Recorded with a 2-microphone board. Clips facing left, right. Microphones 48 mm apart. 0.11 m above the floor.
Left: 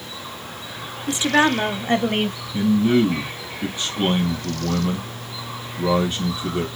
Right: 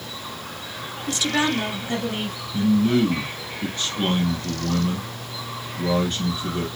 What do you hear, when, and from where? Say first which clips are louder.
1.1 s a woman speaking: left 5 dB; 20° left (ahead or behind), 1.1 m; by 2.4 s 60° left (ahead or behind), 2 m
2.5 s a man speaking: left 1 dB; 15° left (ahead or behind), 3 m